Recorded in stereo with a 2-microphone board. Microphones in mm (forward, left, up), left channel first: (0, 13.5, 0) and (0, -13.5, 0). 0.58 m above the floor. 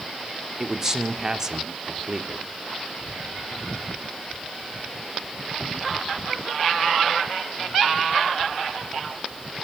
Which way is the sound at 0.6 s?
25° right (ahead or behind).